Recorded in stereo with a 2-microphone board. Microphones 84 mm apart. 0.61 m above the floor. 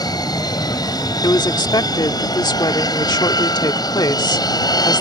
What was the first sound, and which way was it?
An aircraft, 50° left (ahead or behind).